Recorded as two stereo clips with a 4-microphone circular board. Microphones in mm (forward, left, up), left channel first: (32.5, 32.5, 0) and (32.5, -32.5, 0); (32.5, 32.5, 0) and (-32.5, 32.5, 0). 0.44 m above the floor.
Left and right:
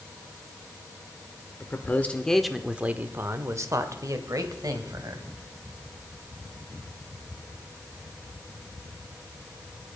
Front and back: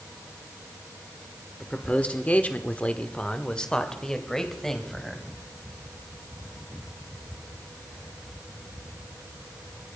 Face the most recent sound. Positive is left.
turn(degrees=-85)